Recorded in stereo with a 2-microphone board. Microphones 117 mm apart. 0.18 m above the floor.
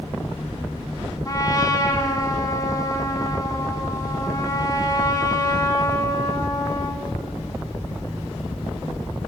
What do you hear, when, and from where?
1.2 s a trumpet: 30° left (ahead or behind), 1.4 m